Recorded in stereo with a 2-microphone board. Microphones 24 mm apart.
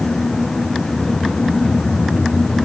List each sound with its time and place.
Only background noise.